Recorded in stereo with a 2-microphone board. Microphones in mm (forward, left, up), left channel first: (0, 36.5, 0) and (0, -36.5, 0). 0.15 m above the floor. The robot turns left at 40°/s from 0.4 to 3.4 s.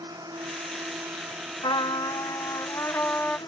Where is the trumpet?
85° left; by 3.4 s 15° left.